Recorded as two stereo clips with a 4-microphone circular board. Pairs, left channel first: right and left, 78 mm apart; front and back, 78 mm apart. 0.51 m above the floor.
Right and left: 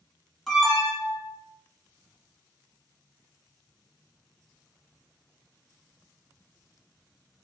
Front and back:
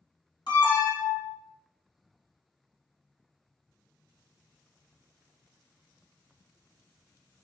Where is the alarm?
5° right, 0.9 m.